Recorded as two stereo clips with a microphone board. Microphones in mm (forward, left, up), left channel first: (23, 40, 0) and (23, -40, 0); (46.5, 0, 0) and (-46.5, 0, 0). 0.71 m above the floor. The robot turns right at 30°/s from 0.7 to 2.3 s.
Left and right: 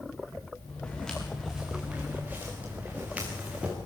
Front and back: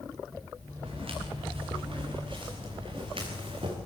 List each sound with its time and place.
0.8 s footsteps: 165° left, 5.5 m; by 3.8 s 165° right, 5 m